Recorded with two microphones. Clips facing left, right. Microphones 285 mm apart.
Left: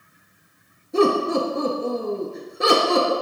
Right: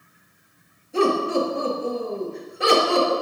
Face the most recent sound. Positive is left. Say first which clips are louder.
# left 2 dB
turn(degrees=50)  # may be behind; listen again after turning